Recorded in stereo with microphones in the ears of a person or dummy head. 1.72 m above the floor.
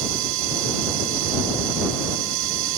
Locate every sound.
0.0 s a machine running: 65° right (ahead or behind)